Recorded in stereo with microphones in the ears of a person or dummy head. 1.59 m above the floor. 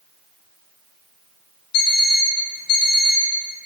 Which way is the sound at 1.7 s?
60° left (ahead or behind).